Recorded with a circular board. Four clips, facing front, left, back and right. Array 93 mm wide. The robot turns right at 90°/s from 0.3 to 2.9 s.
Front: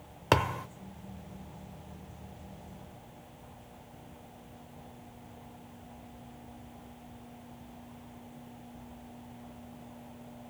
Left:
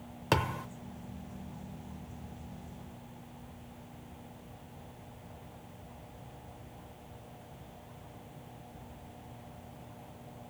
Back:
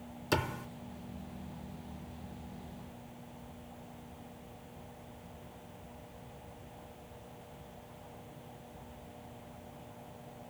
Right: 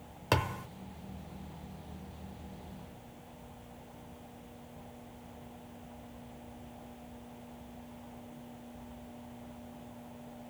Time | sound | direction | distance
0.3 | a thud | straight ahead | 0.8 m